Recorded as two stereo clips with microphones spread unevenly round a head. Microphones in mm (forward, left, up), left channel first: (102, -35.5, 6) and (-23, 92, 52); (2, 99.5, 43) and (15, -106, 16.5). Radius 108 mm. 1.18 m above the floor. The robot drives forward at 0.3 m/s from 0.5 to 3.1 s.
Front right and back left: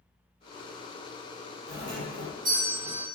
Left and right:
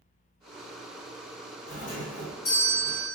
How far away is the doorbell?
About 1.7 m.